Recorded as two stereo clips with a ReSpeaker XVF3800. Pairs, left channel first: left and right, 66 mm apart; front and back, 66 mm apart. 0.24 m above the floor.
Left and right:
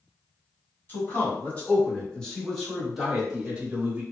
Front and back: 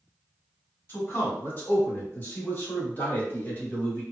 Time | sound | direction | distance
0.9 | a man speaking | 40° left | 1.8 m